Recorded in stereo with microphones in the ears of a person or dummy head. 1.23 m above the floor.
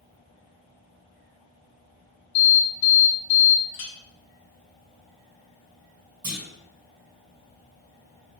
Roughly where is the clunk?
Right.